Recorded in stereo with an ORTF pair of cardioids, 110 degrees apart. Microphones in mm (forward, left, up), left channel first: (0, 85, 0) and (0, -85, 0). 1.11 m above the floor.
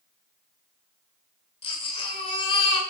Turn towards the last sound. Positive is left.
turn(degrees=35)